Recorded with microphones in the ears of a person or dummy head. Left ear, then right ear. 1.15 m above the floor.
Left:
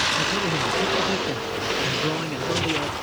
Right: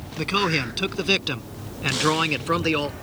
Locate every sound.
0.2 s a man speaking: 60° right (ahead or behind); by 2.9 s 55° right (ahead or behind)